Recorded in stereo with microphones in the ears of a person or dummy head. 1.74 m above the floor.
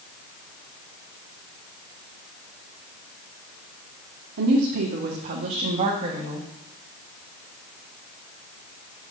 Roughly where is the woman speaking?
Right.